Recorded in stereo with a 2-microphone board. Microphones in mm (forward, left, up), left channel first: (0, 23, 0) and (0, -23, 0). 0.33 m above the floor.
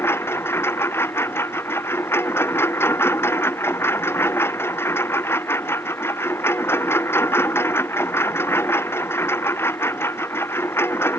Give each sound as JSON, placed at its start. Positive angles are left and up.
{"t": 0.0, "sound": "a lawn mower", "side_deg": 70}